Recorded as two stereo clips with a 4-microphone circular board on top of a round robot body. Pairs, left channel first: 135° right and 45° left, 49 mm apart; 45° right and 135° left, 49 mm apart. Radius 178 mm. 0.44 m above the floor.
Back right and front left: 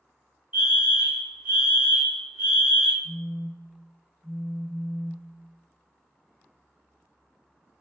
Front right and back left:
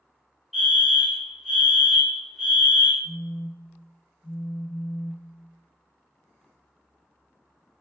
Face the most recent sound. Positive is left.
turn(degrees=-15)